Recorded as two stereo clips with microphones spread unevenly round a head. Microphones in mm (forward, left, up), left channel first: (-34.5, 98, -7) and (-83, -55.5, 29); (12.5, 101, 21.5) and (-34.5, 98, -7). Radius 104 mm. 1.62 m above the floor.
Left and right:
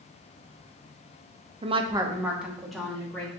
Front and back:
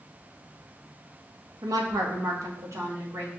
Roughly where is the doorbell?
No doorbell in this recording.